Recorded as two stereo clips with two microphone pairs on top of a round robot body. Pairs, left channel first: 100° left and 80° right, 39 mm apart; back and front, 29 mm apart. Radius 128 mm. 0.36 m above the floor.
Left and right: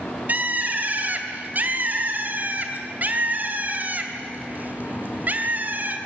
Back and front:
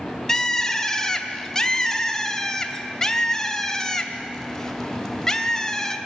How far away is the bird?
About 2.5 m.